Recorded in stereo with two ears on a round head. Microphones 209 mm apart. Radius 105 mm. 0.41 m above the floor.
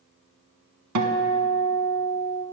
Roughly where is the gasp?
No gasp in this recording.